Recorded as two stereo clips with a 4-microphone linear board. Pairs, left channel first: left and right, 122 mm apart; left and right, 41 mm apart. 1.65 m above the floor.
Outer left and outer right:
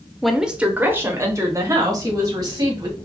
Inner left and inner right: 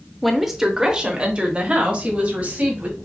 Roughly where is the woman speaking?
Centre.